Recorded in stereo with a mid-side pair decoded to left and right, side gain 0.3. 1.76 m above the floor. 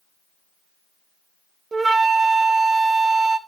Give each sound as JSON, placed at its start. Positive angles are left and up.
{"t": 1.7, "sound": "a flute", "azimuth_deg": -55, "distance_m": 0.9}